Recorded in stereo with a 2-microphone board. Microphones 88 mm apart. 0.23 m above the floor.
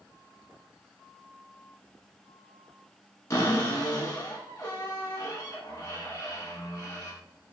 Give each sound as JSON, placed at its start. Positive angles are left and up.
{"t": 3.3, "sound": "a cupboard door", "side_deg": 40, "distance_m": 1.2}